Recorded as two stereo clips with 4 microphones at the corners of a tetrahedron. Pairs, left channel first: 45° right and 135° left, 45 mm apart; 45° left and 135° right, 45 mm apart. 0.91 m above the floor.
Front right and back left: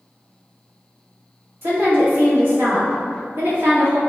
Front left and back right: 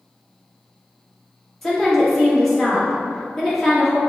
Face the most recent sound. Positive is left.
turn(degrees=125)